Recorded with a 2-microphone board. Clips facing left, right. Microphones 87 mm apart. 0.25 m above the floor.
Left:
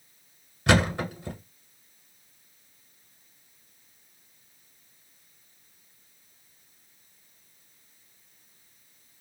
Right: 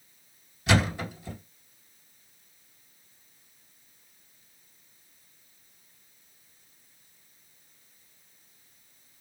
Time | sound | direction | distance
0.7 | a thud | 60° left (ahead or behind) | 1.0 m